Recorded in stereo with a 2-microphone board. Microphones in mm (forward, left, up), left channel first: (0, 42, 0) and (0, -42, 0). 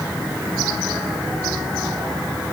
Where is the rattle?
No rattle in this recording.